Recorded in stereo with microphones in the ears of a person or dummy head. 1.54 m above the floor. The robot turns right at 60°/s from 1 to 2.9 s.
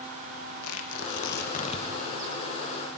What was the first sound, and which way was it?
Tearing paper, 80° left.